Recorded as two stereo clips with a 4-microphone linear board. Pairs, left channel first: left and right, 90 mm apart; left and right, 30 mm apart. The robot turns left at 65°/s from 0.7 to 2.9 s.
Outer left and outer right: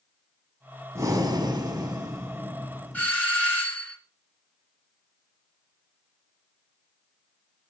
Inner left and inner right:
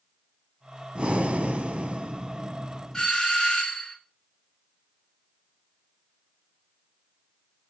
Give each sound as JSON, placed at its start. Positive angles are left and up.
{"t": 0.9, "sound": "breathing", "azimuth_deg": -50, "distance_m": 1.0}
{"t": 2.9, "sound": "a doorbell", "side_deg": 20, "distance_m": 3.0}